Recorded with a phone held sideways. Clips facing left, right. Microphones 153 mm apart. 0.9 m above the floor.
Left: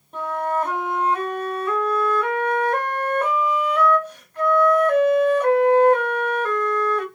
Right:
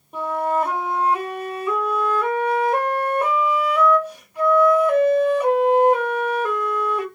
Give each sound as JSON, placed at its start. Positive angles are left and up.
{"t": 0.1, "sound": "a flute", "side_deg": -10, "distance_m": 0.8}